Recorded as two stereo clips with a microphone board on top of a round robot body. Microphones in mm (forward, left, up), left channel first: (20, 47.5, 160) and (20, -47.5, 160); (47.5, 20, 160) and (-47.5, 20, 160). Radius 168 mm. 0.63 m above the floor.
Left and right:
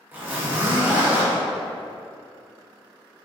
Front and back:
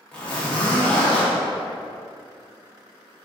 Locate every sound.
0.1 s a zipper: 55° right, 1.2 m